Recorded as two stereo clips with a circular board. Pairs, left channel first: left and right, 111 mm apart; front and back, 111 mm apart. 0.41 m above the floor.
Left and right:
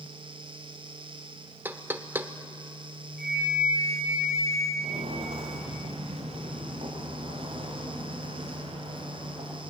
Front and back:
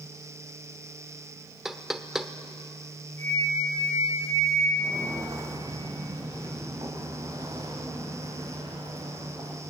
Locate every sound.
1.6 s knocking: 100° right, 0.9 m
3.2 s a flute: straight behind, 6 m
4.8 s footsteps: 115° right, 3.5 m; by 9.6 s 125° right, 6 m